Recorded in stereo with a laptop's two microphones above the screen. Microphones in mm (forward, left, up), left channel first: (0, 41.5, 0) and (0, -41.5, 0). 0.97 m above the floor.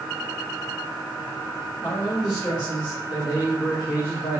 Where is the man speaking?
80° left, 3.5 m; by 4.4 s 70° left (ahead or behind), 1.4 m.